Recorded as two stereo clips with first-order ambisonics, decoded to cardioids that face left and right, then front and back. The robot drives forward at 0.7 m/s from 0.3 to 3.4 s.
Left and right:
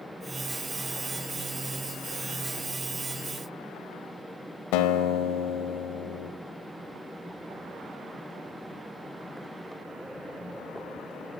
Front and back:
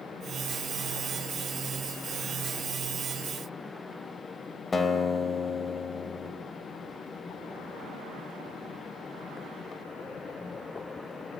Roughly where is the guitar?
Left.